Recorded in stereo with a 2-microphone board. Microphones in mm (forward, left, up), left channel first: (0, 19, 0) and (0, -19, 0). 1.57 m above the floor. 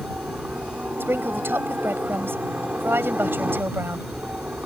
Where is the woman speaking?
80° right.